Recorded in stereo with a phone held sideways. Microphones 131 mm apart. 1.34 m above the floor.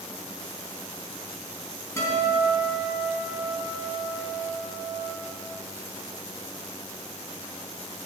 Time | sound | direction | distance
2.0 | a guitar | 20° left (ahead or behind) | 3 m